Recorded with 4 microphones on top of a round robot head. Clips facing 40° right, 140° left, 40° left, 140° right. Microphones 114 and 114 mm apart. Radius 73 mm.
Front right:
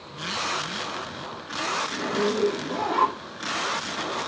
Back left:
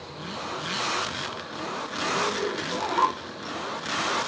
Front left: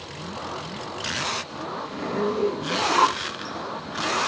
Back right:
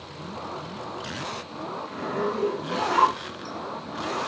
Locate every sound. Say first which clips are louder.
1.9 s a zipper: front right 2 dB, front left 2 dB; 20° right, 1.2 m